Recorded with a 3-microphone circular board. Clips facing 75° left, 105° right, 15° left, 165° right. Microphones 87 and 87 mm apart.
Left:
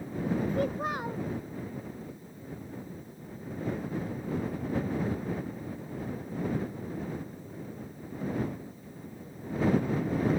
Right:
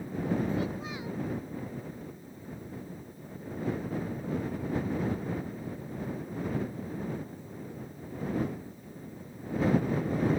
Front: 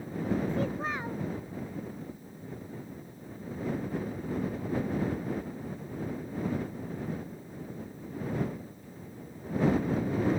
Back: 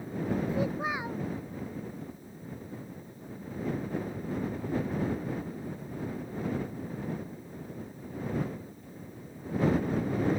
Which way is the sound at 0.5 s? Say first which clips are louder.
Left 3 dB, back 1 dB; 115° left.